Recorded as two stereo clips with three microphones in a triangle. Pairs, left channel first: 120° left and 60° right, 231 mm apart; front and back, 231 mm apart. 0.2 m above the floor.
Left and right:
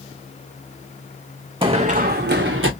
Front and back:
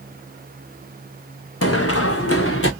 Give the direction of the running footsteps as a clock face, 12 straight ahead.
12 o'clock.